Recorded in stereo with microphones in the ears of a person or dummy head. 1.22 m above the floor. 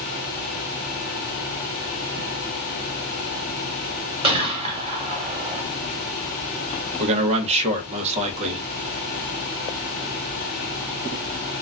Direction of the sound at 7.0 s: 30° right (ahead or behind).